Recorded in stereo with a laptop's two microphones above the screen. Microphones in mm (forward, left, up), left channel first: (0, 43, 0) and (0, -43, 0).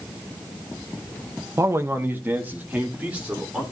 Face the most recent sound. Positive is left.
turn(degrees=-15)  # may be behind; listen again after turning